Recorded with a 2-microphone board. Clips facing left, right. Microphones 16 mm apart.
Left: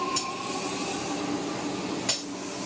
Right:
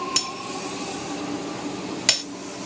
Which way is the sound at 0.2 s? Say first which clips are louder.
Right 3 dB; 70° right (ahead or behind).